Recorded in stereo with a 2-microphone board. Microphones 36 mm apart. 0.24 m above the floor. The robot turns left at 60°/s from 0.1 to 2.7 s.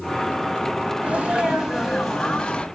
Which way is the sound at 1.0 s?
120° right.